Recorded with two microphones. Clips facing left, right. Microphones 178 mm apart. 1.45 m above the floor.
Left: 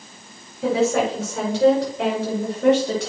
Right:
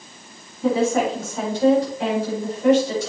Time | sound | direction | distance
0.6 | a woman speaking | 80° left | 5.5 m